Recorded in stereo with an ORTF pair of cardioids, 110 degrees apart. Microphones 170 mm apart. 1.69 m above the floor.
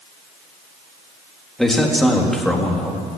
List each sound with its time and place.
1.6 s a man speaking: straight ahead, 3.5 m